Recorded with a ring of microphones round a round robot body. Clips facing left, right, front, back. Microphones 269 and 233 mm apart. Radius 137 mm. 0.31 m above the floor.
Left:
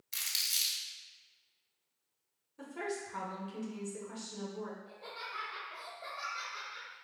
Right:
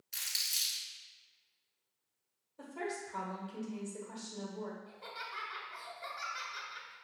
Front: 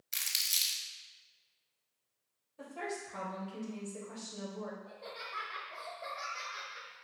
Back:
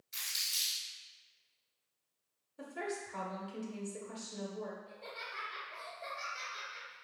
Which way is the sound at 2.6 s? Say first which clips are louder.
Left 1 dB, back 1 dB; 125° left.